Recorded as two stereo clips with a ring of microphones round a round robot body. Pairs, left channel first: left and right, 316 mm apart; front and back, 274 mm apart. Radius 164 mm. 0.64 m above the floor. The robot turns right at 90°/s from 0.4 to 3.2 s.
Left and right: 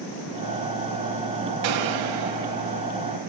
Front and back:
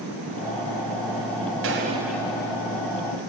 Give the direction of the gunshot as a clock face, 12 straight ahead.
4 o'clock.